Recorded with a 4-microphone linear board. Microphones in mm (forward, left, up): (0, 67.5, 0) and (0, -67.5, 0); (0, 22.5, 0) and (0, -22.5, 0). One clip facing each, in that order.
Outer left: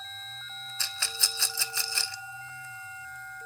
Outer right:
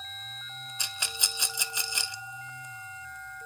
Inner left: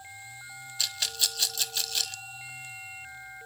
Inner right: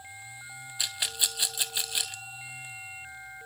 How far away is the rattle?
About 0.6 m.